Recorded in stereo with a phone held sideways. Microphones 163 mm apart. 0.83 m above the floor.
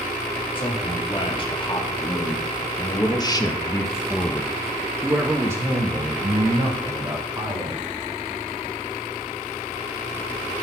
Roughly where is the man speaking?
Left.